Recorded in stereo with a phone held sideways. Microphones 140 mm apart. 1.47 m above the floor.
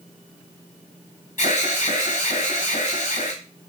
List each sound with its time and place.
1.4 s an alarm: 65° left (ahead or behind), 1.6 m